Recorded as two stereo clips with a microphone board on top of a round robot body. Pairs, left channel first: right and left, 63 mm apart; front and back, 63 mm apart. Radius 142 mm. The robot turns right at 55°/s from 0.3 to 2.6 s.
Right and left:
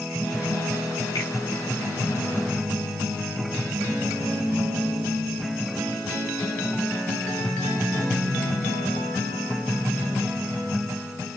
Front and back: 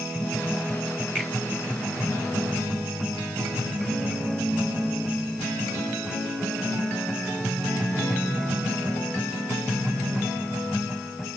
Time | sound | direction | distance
1.1 | a finger snap | 80° right | 4 m